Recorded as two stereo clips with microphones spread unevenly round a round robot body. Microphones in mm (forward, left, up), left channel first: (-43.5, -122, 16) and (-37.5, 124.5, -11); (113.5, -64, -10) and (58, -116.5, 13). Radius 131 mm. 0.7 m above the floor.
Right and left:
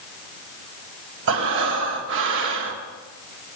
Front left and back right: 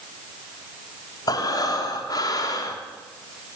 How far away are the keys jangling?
No keys jangling in this recording.